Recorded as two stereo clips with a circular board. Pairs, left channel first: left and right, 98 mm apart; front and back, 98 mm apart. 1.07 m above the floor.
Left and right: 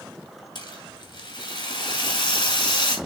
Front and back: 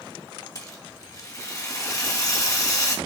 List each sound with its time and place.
0.6 s a rattle: 55° left, 2 m